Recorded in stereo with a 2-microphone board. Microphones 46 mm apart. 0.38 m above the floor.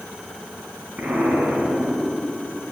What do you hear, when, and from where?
1.0 s an explosion: 30° right (ahead or behind), 2.5 m